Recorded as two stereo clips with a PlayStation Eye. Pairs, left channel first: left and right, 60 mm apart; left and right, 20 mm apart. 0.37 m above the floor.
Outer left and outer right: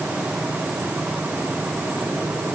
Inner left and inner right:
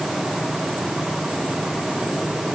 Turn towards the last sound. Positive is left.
No sound to turn to.